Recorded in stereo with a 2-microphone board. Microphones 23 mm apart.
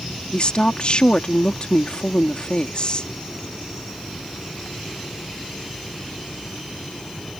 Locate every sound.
0.3 s a woman speaking: 50° left (ahead or behind)